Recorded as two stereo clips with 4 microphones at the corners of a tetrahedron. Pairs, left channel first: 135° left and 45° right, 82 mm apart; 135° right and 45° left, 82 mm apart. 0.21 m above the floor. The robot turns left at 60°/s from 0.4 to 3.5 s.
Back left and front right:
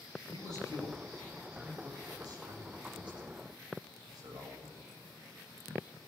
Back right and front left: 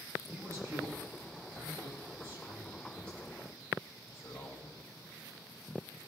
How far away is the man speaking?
About 8 m.